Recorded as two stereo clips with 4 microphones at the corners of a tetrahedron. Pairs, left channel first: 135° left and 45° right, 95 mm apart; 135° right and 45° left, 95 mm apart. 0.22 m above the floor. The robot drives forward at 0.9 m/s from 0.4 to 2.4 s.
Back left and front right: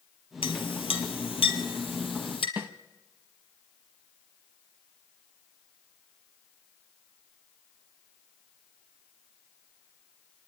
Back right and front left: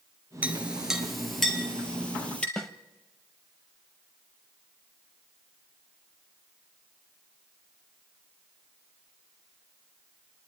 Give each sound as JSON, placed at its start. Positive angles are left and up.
{"t": 0.4, "sound": "a clink", "azimuth_deg": 120, "distance_m": 2.0}
{"t": 2.6, "sound": "a snare drum", "azimuth_deg": -65, "distance_m": 0.8}